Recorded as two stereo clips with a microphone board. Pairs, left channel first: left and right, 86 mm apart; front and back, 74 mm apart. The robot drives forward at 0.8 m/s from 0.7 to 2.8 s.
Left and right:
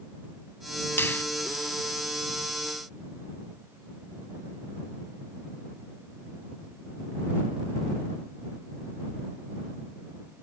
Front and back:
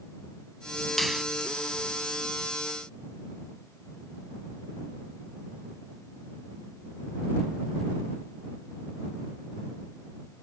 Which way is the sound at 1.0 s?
85° left.